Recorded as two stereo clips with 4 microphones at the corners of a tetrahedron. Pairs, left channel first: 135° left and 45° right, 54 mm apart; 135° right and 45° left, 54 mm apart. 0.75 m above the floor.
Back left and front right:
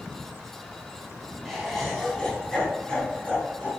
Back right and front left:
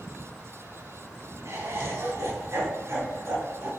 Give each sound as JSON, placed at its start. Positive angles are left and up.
{"t": 1.4, "sound": "laughter", "azimuth_deg": 45, "distance_m": 2.5}